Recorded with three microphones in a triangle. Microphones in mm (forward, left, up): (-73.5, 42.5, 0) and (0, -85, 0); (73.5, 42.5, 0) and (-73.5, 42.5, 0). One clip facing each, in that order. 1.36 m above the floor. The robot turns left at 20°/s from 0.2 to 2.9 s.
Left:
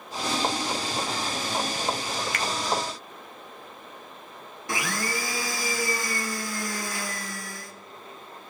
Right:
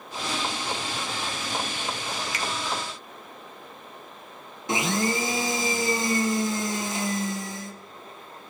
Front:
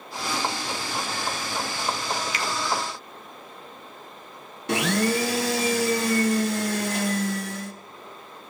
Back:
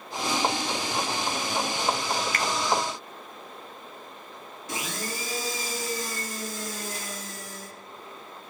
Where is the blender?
5° left, 0.7 m.